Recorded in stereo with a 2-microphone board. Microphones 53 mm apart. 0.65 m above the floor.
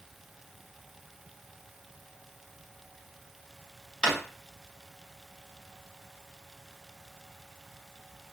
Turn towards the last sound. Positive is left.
turn(degrees=-15)  # may be behind; listen again after turning